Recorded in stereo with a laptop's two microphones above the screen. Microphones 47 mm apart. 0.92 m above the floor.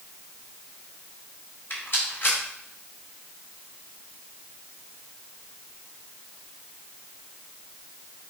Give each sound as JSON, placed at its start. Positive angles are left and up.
{"t": 1.7, "sound": "a rattle", "side_deg": 55, "distance_m": 3.0}